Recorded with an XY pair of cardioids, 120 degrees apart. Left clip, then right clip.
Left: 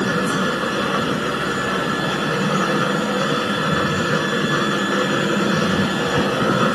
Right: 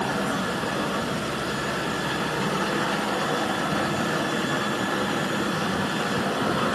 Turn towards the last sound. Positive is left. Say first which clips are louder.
# left 6 dB
turn(degrees=45)